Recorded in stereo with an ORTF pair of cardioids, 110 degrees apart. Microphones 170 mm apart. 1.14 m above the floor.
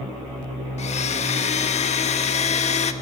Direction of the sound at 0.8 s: 40° left.